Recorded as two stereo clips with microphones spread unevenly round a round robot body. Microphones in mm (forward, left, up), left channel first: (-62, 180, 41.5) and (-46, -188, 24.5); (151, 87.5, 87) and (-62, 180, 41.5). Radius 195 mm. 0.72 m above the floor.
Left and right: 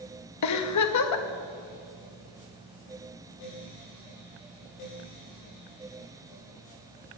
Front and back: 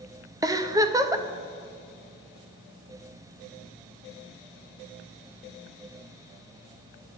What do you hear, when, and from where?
0.4 s a giggle: 100° left, 1.1 m